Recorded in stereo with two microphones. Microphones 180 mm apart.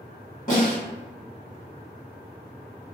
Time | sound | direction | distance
0.5 | a snare drum | 45° left (ahead or behind) | 1.4 m